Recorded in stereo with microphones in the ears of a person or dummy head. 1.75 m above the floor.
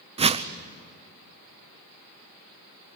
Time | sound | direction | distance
0.2 | a whoosh | 30° right (ahead or behind) | 0.6 m